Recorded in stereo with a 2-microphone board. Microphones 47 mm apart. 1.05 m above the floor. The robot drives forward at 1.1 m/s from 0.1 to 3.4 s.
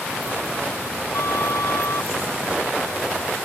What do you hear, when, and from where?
1.1 s a flute: 70° left (ahead or behind); by 2.1 s 65° left (ahead or behind)